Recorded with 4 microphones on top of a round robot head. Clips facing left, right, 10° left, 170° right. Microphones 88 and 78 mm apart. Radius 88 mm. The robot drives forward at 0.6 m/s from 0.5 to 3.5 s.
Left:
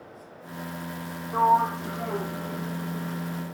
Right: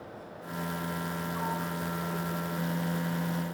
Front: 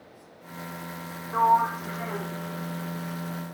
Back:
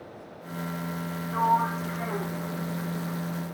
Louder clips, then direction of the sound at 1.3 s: Left 17 dB, front 3 dB; 75° left.